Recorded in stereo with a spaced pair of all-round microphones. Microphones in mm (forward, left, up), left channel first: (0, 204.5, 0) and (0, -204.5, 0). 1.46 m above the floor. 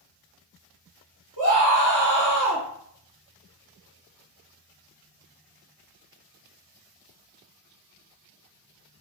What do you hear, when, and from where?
1.4 s a scream: 45° left (ahead or behind), 1.3 m